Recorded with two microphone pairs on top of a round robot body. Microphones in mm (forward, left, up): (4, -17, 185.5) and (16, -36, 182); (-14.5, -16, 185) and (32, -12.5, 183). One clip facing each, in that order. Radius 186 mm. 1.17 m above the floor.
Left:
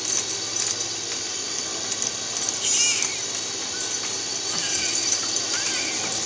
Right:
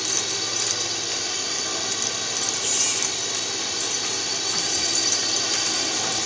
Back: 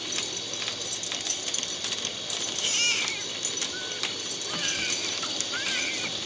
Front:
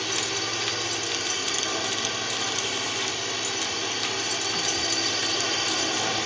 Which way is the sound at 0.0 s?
10° left.